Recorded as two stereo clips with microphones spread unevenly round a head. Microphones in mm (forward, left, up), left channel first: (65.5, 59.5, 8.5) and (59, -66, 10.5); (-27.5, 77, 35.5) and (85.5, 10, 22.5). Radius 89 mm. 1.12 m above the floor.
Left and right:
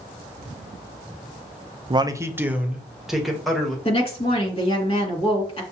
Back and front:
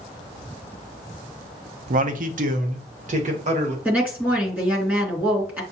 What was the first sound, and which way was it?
A man speaking, 40° right.